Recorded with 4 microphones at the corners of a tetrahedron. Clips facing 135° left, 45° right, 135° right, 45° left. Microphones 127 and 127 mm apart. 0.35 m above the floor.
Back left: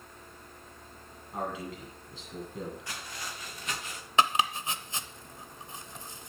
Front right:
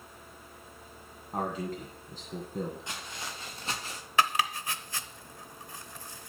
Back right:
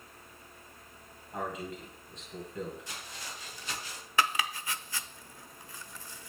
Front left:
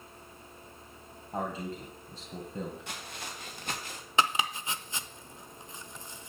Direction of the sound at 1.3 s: 5° right.